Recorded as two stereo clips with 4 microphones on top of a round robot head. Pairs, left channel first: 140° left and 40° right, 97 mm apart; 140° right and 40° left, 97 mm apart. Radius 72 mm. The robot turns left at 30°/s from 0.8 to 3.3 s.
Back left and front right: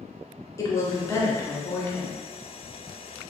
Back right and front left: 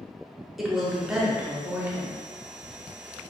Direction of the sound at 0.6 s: 125° left.